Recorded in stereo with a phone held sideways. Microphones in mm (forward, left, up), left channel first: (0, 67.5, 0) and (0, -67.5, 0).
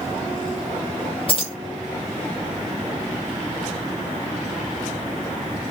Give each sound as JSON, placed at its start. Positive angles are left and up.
{"t": 1.3, "sound": "keys jangling", "side_deg": 40, "distance_m": 1.2}